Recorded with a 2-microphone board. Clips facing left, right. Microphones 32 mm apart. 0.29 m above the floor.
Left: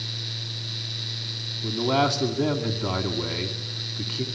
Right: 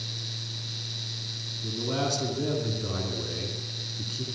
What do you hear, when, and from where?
1.6 s a man speaking: 55° left (ahead or behind), 2.5 m